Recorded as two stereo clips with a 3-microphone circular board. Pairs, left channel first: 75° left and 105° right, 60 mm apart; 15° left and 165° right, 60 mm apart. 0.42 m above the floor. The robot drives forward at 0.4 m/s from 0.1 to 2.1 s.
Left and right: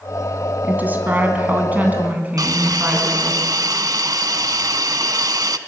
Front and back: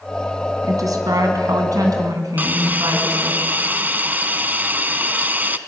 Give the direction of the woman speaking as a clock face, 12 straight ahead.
6 o'clock.